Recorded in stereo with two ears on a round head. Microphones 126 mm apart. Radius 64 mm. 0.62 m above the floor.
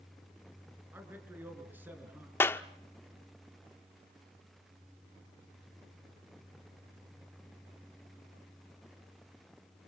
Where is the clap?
15° left (ahead or behind), 0.9 m.